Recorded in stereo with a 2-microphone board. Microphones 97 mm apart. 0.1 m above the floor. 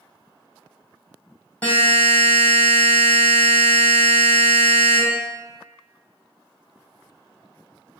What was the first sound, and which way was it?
A buzzer, 15° left (ahead or behind).